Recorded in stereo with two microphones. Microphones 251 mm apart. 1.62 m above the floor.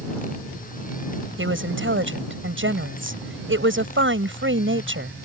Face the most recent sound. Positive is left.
turn(degrees=-50)  # may be behind; listen again after turning